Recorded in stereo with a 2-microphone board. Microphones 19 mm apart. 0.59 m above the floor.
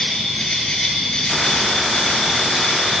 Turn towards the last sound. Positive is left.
turn(degrees=60)  # may be behind; listen again after turning